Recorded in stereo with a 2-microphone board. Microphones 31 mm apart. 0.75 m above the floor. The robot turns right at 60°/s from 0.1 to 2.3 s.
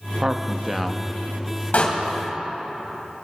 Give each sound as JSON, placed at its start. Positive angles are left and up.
{"t": 0.2, "sound": "a man speaking", "azimuth_deg": -50, "distance_m": 0.7}
{"t": 1.7, "sound": "a door slam", "side_deg": 55, "distance_m": 2.5}